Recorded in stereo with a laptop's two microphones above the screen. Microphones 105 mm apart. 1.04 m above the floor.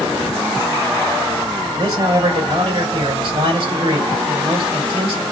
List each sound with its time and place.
1.8 s a man speaking: 50° right (ahead or behind), 3.5 m